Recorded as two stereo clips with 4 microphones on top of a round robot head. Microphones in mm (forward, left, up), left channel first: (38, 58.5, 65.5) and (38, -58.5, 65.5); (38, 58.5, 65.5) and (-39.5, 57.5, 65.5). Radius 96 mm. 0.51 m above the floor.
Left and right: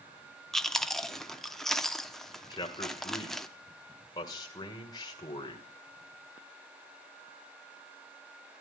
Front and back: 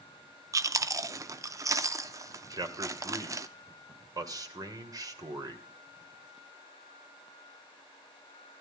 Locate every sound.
0.5 s chewing: 175° left, 0.7 m
2.5 s a man speaking: 145° left, 1.9 m